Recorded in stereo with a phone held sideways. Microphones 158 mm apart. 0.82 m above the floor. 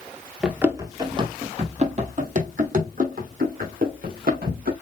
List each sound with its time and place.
0.4 s running footsteps: 5° right (ahead or behind), 0.9 m; by 4.7 s 65° right (ahead or behind), 3.5 m